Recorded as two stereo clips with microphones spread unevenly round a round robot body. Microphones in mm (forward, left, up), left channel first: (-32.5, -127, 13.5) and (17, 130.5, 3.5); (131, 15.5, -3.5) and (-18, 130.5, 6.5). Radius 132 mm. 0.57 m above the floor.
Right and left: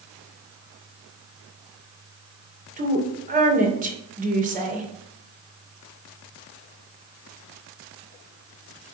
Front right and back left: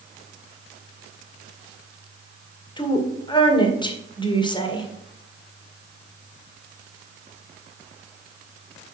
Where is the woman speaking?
25° left, 2 m.